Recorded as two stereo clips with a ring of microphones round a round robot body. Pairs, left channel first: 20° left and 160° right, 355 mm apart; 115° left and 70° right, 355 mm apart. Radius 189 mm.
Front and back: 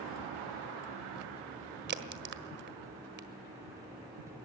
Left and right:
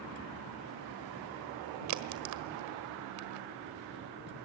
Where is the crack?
100° right, 1.5 m.